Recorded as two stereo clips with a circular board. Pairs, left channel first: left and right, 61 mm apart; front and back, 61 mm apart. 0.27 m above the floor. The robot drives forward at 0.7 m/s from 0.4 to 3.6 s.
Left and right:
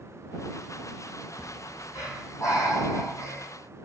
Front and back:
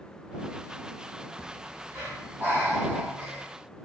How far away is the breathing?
About 6 m.